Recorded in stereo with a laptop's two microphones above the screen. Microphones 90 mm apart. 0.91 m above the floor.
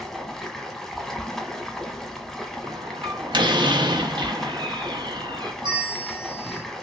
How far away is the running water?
About 0.9 m.